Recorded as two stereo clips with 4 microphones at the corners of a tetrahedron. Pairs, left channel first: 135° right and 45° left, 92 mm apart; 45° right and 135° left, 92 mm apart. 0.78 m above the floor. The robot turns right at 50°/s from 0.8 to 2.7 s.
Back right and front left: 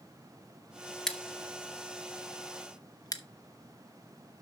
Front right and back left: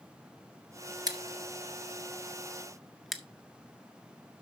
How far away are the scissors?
About 0.9 m.